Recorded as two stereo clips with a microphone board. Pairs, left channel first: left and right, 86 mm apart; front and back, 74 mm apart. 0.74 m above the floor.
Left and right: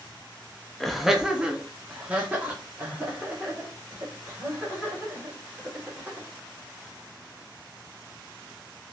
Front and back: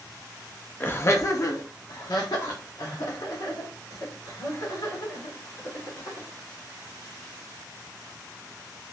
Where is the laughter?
5° left, 0.5 m; by 6.3 s 25° right, 3.5 m.